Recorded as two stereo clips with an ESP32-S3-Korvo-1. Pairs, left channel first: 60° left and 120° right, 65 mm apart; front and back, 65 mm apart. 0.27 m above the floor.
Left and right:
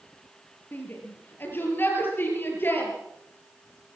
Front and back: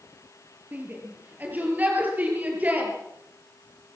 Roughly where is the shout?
Behind left.